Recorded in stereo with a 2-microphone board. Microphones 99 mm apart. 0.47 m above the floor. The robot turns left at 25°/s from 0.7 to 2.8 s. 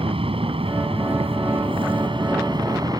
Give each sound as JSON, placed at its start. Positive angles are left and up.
{"t": 0.0, "sound": "an aircraft", "azimuth_deg": -80}